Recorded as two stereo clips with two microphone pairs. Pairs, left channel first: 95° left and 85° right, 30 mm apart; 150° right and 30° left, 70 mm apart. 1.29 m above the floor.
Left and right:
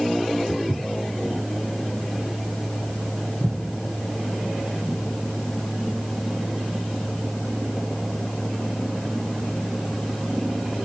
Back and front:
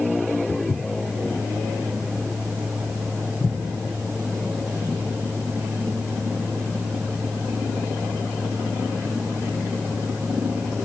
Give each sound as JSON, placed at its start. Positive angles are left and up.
{"t": 0.5, "sound": "footsteps", "azimuth_deg": -80, "distance_m": 1.5}